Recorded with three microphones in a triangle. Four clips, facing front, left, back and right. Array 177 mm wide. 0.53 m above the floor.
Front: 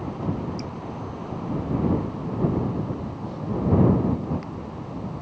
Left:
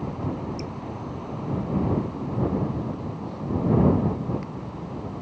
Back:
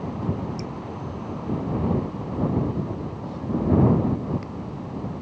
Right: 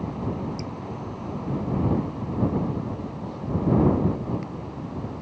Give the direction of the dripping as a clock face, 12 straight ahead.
8 o'clock.